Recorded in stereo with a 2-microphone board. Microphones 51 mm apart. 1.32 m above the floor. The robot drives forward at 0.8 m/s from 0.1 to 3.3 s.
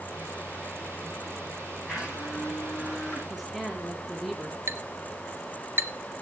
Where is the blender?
10° right (ahead or behind), 9.5 m.